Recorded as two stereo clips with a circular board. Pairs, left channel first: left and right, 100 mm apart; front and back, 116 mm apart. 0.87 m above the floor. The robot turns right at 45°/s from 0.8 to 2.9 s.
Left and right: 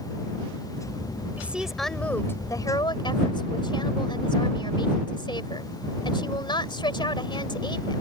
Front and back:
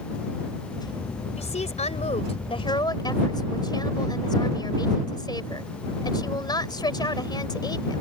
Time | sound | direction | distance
1.4 | a woman speaking | 20° right | ?